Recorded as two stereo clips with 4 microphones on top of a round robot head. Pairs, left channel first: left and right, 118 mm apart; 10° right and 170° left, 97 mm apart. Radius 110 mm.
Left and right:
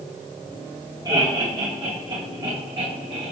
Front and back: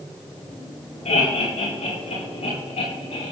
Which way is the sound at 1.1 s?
30° right.